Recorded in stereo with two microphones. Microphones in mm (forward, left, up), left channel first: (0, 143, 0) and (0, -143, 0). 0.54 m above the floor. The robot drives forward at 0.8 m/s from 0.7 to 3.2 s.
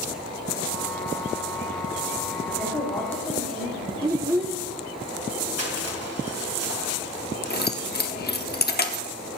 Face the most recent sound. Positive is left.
turn(degrees=35)  # may be behind; listen again after turning